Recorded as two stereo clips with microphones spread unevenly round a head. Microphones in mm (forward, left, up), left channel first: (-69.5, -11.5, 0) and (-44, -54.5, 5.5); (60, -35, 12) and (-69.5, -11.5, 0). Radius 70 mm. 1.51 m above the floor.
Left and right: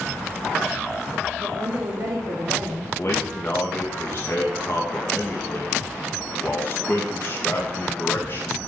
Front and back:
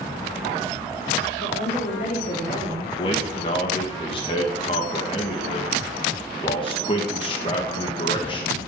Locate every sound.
1.4 s a woman speaking: 35° right, 4 m; by 2.9 s 60° right, 3 m
3.0 s a man speaking: 50° left, 2 m